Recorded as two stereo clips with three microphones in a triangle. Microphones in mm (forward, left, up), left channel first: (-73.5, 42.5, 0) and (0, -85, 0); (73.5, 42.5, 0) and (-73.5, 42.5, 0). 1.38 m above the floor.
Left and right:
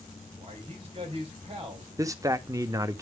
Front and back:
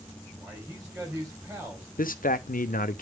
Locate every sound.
0.4 s a man speaking: 110° right, 4 m
2.0 s a man speaking: 5° left, 0.8 m